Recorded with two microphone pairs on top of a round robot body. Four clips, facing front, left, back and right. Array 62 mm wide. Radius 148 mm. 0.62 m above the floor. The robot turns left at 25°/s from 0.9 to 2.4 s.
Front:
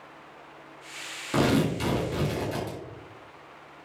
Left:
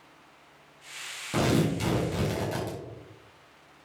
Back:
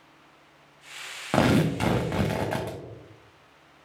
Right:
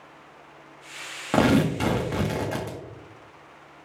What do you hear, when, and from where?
1.3 s tearing paper: 140° right, 1.1 m; by 2.8 s 165° right, 1.1 m